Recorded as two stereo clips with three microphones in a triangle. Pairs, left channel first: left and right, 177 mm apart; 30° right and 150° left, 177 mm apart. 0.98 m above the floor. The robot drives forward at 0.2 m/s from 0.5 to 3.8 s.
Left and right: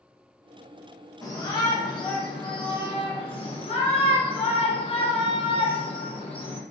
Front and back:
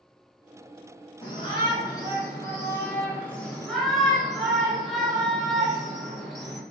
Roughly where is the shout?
Ahead left.